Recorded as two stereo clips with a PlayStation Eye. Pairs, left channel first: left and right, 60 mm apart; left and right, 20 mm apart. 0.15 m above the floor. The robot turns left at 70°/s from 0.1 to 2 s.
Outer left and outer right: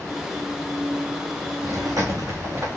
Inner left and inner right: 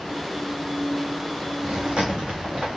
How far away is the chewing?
About 3.5 m.